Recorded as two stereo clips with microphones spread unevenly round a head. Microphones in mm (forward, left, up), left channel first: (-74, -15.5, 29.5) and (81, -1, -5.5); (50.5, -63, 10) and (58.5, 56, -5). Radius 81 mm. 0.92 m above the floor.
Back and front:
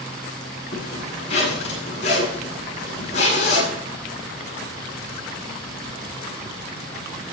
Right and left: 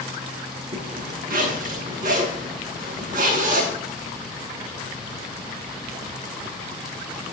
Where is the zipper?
130° left, 9.5 m.